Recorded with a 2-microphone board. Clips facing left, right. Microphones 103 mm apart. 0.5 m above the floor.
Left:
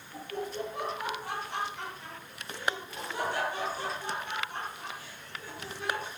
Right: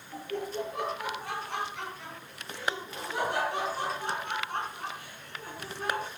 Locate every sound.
0.1 s laughter: 75° right (ahead or behind), 10 m; by 6.1 s 45° right (ahead or behind), 5 m